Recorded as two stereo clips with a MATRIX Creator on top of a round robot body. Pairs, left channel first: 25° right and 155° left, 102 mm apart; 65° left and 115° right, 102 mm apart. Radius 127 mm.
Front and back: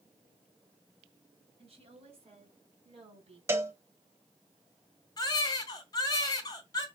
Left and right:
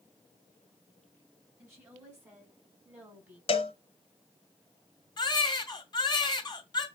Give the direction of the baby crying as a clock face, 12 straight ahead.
11 o'clock.